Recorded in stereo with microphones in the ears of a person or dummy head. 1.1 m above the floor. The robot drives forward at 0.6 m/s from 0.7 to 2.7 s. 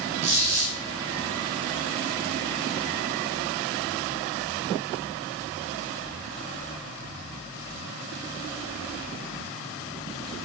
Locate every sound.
0.2 s a squeak: 40° right (ahead or behind), 1.7 m